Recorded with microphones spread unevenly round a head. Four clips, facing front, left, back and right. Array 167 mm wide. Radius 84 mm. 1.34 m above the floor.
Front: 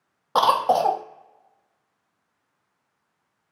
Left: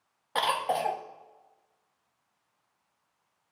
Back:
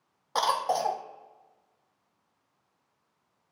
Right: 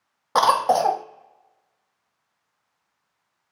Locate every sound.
0.3 s a cough: 45° right, 0.6 m